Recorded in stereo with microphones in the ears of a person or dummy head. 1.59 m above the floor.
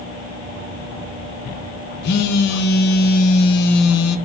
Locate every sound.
2.0 s a phone buzzing: 65° left (ahead or behind), 0.6 m